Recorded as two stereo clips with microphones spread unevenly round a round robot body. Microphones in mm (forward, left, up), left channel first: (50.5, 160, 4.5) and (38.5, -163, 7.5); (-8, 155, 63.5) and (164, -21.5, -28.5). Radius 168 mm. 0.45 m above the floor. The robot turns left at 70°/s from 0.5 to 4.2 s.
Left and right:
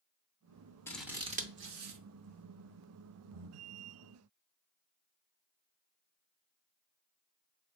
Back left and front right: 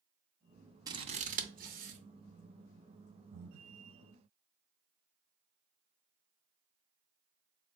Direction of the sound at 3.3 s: 65° right.